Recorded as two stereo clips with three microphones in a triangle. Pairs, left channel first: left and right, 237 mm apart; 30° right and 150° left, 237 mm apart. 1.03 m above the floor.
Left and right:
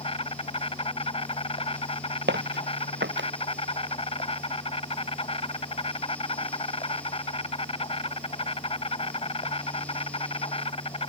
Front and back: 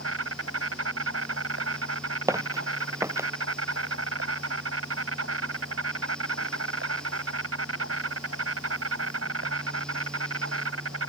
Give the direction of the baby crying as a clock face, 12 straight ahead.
I don't hear a baby crying.